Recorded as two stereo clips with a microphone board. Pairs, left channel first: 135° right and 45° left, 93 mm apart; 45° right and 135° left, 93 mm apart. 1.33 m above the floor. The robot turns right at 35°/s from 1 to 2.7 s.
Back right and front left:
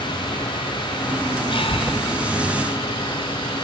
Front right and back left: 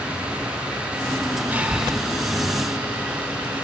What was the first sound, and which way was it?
Breathing, 155° right.